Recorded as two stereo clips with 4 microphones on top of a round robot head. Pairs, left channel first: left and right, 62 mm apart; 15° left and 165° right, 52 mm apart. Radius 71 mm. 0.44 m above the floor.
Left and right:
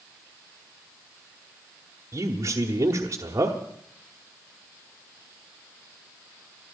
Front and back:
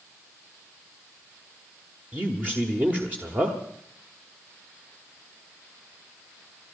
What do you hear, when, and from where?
2.1 s a man speaking: 115° right, 1.2 m